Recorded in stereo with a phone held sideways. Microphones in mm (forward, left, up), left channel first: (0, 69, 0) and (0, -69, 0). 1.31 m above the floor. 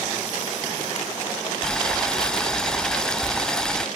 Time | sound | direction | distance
1.6 | boiling | 5° left (ahead or behind) | ?